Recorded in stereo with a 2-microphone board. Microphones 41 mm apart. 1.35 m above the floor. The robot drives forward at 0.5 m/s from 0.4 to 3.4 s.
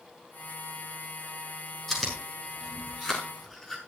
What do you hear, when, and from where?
1.9 s chewing: 10° left (ahead or behind), 7 m